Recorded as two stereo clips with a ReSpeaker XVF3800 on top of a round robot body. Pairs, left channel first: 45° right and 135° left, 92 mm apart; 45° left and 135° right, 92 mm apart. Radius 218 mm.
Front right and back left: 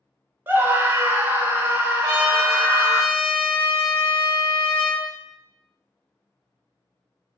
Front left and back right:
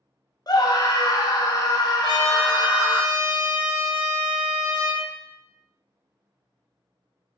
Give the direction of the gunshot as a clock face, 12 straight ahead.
No gunshot in this recording.